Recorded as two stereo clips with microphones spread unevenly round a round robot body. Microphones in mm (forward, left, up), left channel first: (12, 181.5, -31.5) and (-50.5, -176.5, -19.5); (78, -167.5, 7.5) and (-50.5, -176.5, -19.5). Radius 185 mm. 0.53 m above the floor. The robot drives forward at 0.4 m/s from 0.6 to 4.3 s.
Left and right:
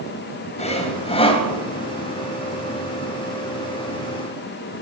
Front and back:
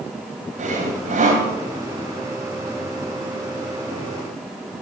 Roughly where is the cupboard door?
No cupboard door in this recording.